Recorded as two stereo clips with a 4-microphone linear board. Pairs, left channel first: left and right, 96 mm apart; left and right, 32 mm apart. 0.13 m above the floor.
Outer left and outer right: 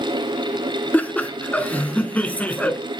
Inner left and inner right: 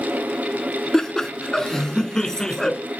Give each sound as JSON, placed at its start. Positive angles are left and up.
{"t": 0.9, "sound": "laughter", "side_deg": 15, "distance_m": 1.3}